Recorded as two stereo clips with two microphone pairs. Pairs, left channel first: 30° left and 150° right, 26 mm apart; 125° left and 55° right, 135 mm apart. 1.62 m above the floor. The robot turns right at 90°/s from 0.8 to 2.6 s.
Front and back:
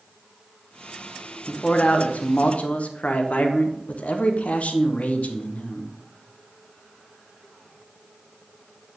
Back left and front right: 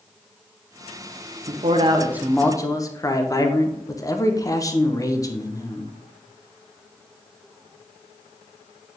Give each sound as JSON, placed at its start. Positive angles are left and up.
{"t": 1.5, "sound": "a man speaking", "azimuth_deg": -40, "distance_m": 0.8}